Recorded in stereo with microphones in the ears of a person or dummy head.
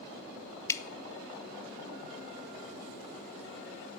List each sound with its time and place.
0.7 s dripping: 15° left (ahead or behind), 0.6 m